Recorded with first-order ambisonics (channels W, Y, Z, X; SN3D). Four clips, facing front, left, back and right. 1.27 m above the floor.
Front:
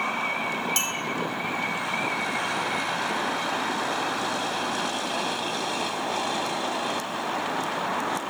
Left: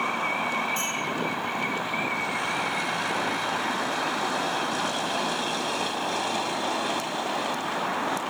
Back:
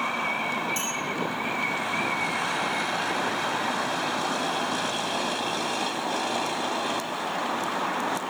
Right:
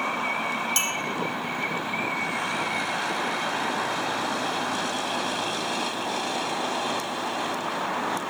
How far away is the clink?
About 0.9 m.